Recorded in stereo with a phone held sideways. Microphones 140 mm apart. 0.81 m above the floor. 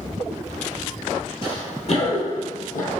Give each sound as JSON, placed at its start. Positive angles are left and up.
{"t": 1.4, "sound": "running footsteps", "side_deg": 40, "distance_m": 1.0}